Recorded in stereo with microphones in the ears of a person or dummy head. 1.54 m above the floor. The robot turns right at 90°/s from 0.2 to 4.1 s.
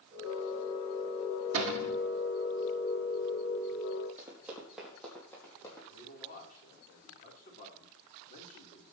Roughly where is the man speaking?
Left.